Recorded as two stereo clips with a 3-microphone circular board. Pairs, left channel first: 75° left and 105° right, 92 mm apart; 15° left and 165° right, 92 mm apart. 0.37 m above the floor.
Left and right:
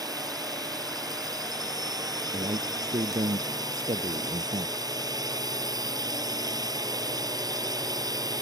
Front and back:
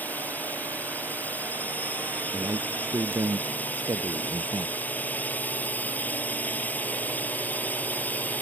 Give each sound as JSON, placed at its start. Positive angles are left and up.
{"t": 0.0, "sound": "a drone", "azimuth_deg": -55}
{"t": 2.3, "sound": "a man speaking", "azimuth_deg": -115}